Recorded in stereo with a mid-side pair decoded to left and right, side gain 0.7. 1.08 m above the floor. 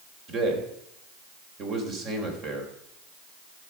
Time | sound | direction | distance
0.3 | a man speaking | 45° right | 3.5 m